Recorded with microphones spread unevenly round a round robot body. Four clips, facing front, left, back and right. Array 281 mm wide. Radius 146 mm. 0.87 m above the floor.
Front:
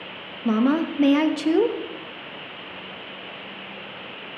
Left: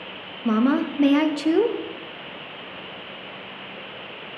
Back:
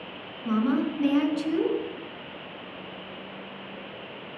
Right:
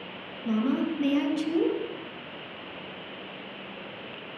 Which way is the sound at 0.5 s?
40° left.